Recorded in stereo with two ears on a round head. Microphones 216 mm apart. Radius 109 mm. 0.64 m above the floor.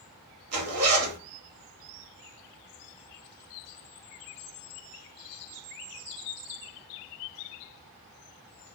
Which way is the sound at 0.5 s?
70° right (ahead or behind).